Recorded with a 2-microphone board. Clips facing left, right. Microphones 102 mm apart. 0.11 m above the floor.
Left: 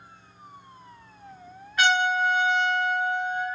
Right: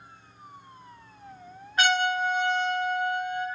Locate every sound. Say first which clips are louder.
1.8 s a trumpet: left 2 dB; 30° right (ahead or behind), 1.7 m